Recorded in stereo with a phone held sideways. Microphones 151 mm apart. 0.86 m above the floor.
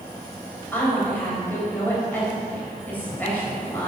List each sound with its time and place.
0.7 s a woman speaking: 10° left (ahead or behind), 4 m